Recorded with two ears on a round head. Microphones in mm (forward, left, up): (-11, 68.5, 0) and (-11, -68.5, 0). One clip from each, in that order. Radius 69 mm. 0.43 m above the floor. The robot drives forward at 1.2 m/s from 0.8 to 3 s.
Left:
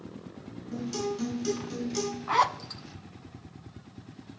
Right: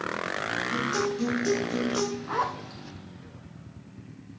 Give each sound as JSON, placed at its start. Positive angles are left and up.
{"t": 0.7, "sound": "a guitar", "side_deg": 5, "distance_m": 5.5}
{"t": 2.3, "sound": "a zipper", "side_deg": 50, "distance_m": 0.6}